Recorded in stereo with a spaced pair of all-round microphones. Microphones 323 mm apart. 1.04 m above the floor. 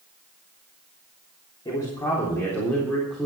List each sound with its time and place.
1.6 s a man speaking: 15° left (ahead or behind), 3.5 m; by 3.3 s centre (ahead or behind), 4 m